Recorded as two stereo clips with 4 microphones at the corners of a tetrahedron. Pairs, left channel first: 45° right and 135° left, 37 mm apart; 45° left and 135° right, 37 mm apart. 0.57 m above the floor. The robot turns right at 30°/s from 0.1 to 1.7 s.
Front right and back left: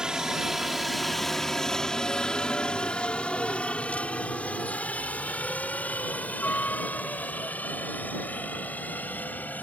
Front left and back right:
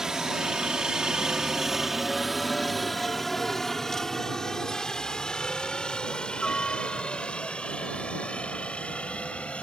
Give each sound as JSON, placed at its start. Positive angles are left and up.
{"t": 0.0, "sound": "a helicopter", "azimuth_deg": 170}